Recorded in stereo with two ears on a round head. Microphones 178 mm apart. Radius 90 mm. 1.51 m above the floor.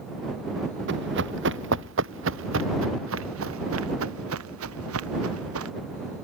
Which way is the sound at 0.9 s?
65° right (ahead or behind).